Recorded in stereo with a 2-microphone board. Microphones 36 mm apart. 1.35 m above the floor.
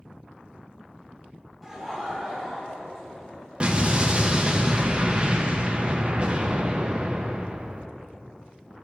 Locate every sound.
1.6 s laughter: 5° left (ahead or behind), 2 m; by 3.6 s 30° left (ahead or behind), 3 m
3.6 s an explosion: 30° right (ahead or behind), 0.7 m